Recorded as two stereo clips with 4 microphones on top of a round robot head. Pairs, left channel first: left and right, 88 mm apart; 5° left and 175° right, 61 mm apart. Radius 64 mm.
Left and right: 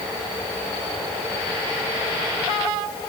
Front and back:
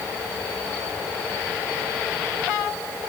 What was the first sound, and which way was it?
Only background noise.